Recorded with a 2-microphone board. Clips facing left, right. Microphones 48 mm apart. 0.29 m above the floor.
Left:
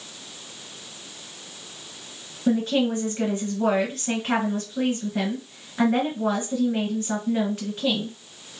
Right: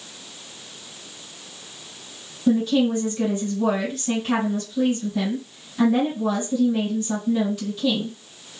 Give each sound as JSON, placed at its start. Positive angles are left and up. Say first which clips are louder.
{"t": 2.5, "sound": "a woman speaking", "louder": "right 3 dB", "side_deg": 40, "distance_m": 1.9}